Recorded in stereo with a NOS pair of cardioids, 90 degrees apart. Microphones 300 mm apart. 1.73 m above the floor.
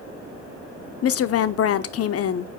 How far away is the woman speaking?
About 0.8 m.